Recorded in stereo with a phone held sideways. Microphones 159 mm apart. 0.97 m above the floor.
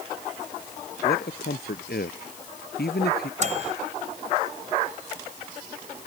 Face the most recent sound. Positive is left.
turn(degrees=-50)  # may be behind; listen again after turning